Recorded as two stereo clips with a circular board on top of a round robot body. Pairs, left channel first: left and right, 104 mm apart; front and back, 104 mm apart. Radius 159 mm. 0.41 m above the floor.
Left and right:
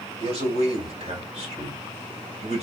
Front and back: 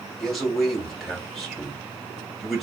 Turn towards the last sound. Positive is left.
turn(degrees=-90)